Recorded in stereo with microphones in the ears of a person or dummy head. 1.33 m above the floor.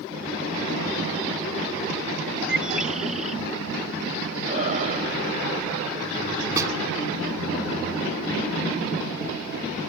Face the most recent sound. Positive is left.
turn(degrees=-15)  # may be behind; listen again after turning